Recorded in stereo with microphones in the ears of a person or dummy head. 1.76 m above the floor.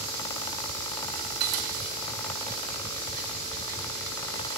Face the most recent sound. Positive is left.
turn(degrees=-55)  # may be behind; listen again after turning